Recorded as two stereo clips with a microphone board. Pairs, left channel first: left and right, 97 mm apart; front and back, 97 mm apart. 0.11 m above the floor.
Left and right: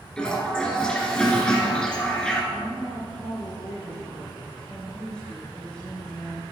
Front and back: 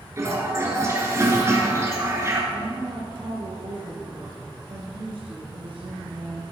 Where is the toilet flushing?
165° left, 1.8 m.